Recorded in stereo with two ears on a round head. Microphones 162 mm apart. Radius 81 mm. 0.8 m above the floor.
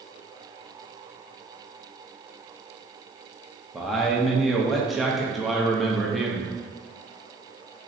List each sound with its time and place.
3.7 s a man speaking: centre (ahead or behind), 0.5 m